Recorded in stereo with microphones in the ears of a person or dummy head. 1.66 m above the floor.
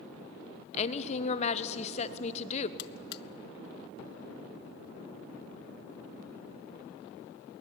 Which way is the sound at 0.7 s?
30° left (ahead or behind).